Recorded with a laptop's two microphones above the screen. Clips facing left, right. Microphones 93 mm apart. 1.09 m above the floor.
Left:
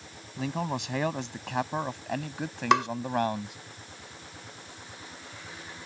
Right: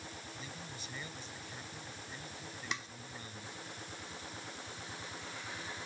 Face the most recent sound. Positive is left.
turn(degrees=75)  # may be behind; listen again after turning